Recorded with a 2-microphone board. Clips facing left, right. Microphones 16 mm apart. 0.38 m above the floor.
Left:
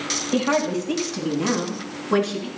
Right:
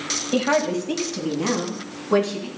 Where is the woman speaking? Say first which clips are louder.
Right 1 dB; 25° right (ahead or behind), 1.9 m; by 2.5 s 5° right (ahead or behind), 4 m.